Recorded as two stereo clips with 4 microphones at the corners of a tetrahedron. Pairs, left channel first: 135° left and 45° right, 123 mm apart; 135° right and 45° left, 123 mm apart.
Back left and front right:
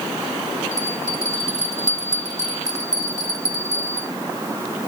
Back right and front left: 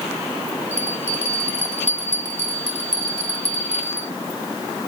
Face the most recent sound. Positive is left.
turn(degrees=70)